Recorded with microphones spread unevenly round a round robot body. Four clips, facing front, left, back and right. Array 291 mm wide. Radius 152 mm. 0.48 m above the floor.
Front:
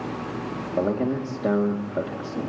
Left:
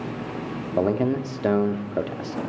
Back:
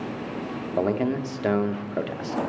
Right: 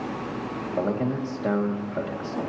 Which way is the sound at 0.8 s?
90° left.